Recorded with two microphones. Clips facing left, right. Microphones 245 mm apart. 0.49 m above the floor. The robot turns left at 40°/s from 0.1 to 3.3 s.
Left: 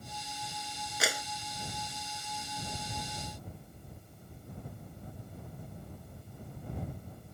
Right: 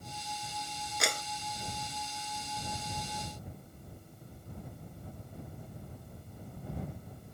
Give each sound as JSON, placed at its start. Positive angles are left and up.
{"t": 1.0, "sound": "a clap", "side_deg": 0}